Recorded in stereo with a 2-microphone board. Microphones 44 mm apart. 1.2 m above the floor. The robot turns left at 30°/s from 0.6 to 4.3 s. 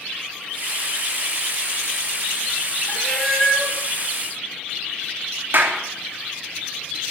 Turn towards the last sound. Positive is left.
turn(degrees=-55)  # may be behind; listen again after turning